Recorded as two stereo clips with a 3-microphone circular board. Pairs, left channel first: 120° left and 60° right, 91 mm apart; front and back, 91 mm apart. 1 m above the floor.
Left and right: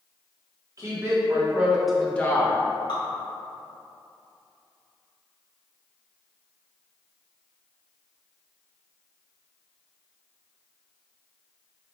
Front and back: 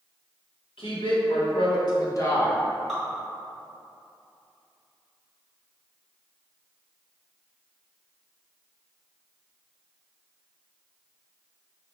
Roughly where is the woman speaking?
Ahead.